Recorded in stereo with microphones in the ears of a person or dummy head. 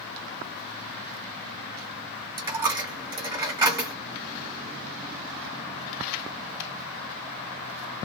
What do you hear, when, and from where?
2.4 s a dropped coin: 25° right (ahead or behind), 1.1 m